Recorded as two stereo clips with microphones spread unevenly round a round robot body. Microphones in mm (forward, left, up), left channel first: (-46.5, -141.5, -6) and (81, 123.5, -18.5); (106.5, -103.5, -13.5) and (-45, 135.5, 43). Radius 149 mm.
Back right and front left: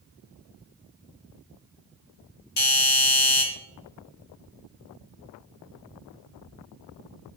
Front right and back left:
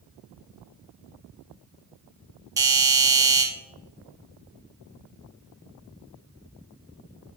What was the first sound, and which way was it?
A doorbell, 150° right.